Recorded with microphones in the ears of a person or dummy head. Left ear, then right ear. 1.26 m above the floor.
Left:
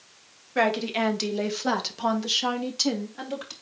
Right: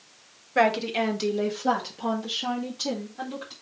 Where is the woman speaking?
5° right (ahead or behind), 1.9 m; by 3.5 s 75° left (ahead or behind), 3 m.